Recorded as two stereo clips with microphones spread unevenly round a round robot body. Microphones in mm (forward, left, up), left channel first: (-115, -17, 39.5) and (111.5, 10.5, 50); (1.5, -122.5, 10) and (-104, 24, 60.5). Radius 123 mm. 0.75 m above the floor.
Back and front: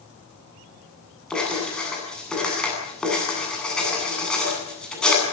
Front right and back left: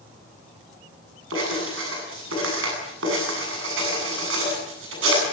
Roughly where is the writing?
Left.